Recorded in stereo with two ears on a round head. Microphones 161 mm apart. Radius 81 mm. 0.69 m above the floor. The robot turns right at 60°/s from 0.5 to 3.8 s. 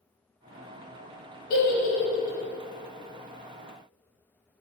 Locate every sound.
1.5 s a giggle: 55° left (ahead or behind), 0.7 m; by 2.4 s 25° left (ahead or behind), 0.7 m